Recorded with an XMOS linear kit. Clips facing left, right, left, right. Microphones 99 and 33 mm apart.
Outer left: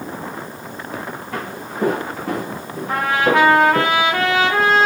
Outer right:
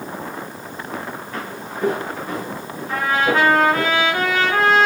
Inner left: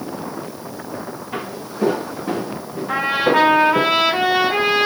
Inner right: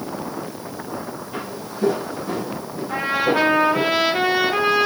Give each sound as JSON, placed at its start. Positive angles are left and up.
{"t": 1.3, "sound": "footsteps", "side_deg": 75, "distance_m": 5.0}
{"t": 2.9, "sound": "a trumpet", "side_deg": 80, "distance_m": 4.5}